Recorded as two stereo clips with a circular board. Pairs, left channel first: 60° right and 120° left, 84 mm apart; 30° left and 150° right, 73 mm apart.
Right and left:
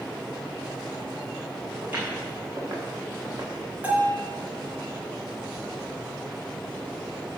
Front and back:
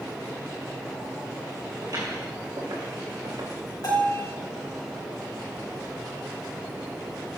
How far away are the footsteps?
About 4 m.